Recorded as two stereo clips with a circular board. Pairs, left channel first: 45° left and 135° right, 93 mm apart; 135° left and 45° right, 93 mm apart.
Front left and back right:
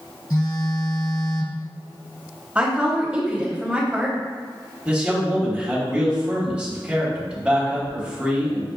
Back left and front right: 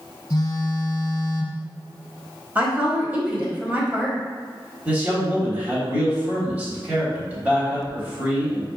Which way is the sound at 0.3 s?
85° left.